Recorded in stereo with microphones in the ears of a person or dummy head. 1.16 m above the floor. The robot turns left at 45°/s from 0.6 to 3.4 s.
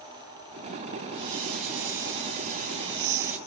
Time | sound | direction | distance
1.1 | a hiss | 60° right | 1.0 m